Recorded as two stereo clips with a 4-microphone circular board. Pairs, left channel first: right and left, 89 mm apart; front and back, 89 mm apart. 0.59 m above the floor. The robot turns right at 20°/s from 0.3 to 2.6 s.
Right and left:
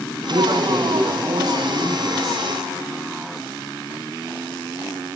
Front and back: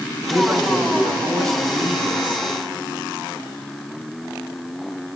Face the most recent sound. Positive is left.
turn(degrees=150)